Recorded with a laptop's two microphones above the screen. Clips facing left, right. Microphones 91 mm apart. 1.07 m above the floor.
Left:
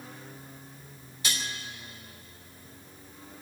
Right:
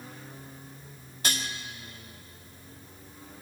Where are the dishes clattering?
50° right (ahead or behind), 1.4 m.